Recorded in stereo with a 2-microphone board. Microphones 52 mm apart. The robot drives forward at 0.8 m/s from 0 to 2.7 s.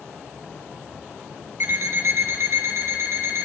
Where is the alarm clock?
60° right (ahead or behind), 2 m; by 3.5 s 70° right (ahead or behind), 1.9 m.